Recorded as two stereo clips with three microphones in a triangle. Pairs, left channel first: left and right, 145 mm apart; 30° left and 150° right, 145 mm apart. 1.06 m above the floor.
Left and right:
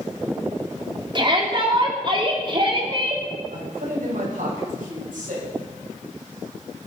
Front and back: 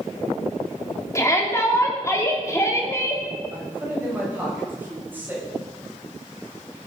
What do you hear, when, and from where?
1.1 s a shout: 35° right, 3 m
3.5 s a man speaking: 75° right, 6 m